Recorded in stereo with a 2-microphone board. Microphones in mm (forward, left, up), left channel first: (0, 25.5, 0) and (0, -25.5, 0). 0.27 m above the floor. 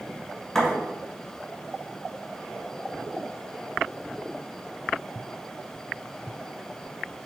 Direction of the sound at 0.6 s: 5° left (ahead or behind).